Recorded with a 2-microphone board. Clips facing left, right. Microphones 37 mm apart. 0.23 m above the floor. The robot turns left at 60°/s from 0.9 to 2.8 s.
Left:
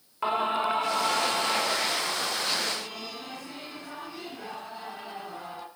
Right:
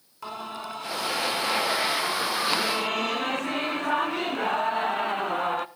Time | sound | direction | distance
0.2 | singing | 40° left | 0.7 m